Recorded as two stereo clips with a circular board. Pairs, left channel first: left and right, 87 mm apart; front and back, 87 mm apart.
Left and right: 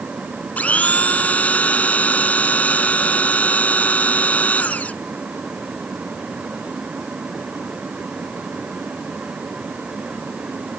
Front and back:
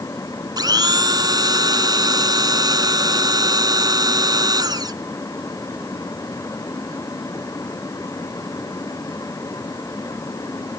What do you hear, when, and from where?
0.6 s a blender: 160° left